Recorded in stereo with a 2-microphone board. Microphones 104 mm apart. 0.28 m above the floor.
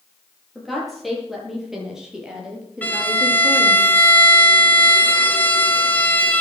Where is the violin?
15° left (ahead or behind), 2.5 m.